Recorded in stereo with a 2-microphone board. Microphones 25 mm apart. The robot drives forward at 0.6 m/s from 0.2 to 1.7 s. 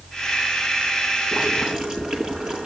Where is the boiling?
30° right (ahead or behind), 8 m.